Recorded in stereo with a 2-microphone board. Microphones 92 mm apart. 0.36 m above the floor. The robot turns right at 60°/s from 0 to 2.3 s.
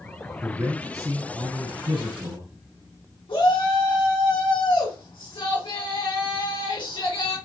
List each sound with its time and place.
0.4 s a man speaking: 175° right, 3.5 m; by 2.5 s 60° right, 3.5 m
3.3 s a shout: 70° left (ahead or behind), 3.5 m